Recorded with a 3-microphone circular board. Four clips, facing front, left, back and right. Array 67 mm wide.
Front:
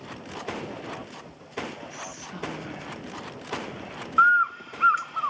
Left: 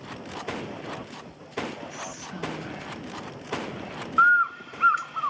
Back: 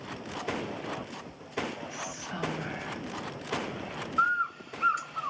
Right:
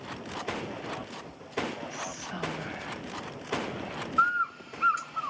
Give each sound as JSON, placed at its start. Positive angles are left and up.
{"t": 1.9, "sound": "whispering", "azimuth_deg": -145, "distance_m": 1.4}
{"t": 4.2, "sound": "a bird", "azimuth_deg": 50, "distance_m": 1.3}